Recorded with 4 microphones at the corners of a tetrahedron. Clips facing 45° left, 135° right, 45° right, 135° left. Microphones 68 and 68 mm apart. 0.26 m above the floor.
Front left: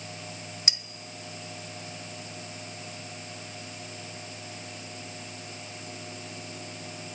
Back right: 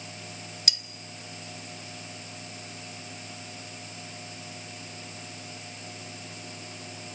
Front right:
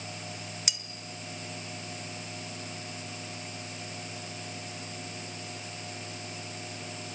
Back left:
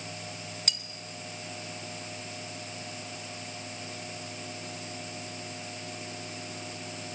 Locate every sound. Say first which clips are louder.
0.7 s cutlery clinking: even, back left 2 dB; 20° left, 0.5 m